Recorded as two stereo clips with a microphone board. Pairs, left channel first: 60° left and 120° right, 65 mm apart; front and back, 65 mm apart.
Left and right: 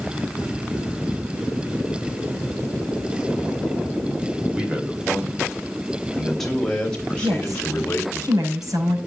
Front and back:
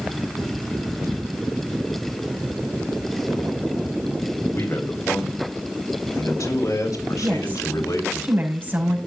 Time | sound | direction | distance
4.5 | a man speaking | 45° right | 4 m
7.2 | a woman speaking | 120° right | 6 m